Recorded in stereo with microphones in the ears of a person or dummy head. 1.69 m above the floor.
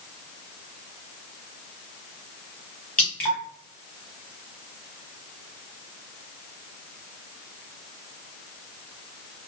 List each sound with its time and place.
3.0 s dripping: 10° left (ahead or behind), 1.3 m